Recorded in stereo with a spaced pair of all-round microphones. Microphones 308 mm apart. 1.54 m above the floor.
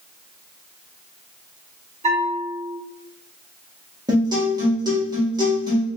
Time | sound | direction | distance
2.0 | a bell | 20° right (ahead or behind) | 1.2 m
4.1 | a guitar | 10° right (ahead or behind) | 1.5 m